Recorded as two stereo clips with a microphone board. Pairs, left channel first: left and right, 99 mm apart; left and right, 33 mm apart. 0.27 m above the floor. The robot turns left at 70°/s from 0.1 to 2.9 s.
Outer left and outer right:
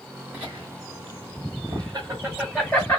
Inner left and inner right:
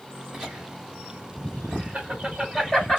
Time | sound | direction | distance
0.3 | laughter | 15° right (ahead or behind) | 2.5 m